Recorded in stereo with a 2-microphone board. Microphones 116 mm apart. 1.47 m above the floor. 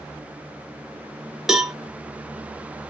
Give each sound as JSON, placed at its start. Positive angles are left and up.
{"t": 1.5, "sound": "a cowbell", "side_deg": -5, "distance_m": 0.7}